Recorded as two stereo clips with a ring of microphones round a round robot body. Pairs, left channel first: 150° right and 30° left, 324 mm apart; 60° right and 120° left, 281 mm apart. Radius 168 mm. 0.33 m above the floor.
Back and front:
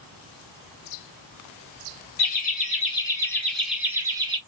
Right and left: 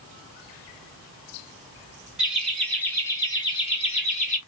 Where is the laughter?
155° right, 1.3 m; by 4.4 s 30° right, 1.4 m.